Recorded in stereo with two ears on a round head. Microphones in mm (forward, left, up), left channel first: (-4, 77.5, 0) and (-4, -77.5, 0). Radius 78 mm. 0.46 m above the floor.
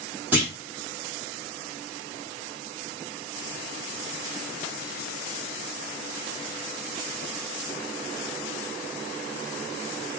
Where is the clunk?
10° right (ahead or behind), 1.3 m.